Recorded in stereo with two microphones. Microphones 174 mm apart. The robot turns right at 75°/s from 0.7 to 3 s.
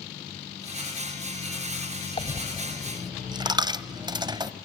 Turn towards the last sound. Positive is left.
turn(degrees=-25)  # may be behind; listen again after turning